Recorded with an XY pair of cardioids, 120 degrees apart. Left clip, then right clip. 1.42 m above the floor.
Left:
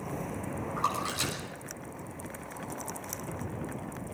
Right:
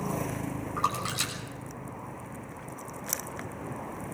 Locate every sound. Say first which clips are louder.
0.8 s a splash: right 1 dB; 20° right, 6.5 m